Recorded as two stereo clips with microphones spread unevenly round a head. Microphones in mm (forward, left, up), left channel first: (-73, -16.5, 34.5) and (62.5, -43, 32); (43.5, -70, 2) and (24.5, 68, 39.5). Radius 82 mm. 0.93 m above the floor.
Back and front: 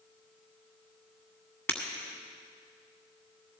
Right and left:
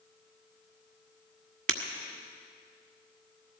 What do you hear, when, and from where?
1.7 s breaking glass: 90° left, 1.6 m